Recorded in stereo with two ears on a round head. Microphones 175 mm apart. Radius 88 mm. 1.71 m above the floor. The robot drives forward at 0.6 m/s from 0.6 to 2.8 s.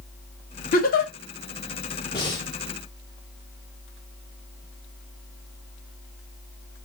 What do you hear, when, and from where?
0.7 s a giggle: 45° left (ahead or behind), 1.2 m
2.1 s breathing: 25° left (ahead or behind), 1.9 m; by 2.5 s 20° left (ahead or behind), 2 m